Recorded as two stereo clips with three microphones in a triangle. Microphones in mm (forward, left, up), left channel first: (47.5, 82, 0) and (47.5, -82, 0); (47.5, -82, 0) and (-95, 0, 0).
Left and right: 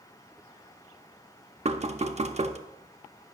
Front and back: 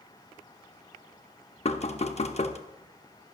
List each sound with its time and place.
1.6 s knocking: 60° right, 0.7 m